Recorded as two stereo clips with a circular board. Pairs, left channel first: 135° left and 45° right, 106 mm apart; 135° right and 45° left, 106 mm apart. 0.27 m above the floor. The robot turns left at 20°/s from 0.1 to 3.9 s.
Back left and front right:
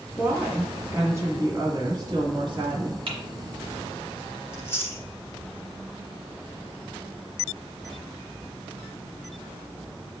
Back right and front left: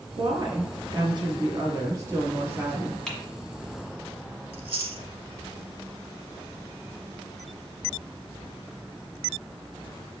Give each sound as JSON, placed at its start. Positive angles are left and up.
{"t": 0.2, "sound": "a woman speaking", "azimuth_deg": 30, "distance_m": 2.0}
{"t": 3.1, "sound": "typing on a keyboard", "azimuth_deg": -50, "distance_m": 1.3}
{"t": 4.5, "sound": "chewing", "azimuth_deg": 70, "distance_m": 1.0}